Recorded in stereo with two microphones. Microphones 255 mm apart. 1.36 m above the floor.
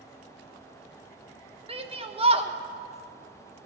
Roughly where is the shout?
Right.